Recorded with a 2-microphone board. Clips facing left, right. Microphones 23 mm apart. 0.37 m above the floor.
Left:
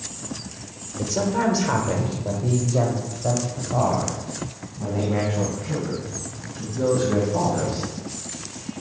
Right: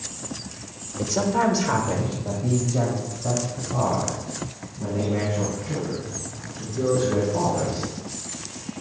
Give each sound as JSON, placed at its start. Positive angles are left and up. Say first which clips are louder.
{"t": 1.0, "sound": "a woman speaking", "louder": "right 1 dB", "side_deg": -10, "distance_m": 0.9}